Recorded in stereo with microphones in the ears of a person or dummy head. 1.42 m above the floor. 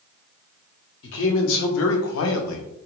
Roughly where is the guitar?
No guitar in this recording.